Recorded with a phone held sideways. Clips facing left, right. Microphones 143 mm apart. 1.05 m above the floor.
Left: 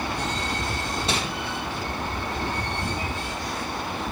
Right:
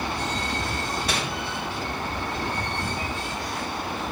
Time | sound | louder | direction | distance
1.1 | crumpling | left 3 dB | 25° left (ahead or behind) | 1.6 m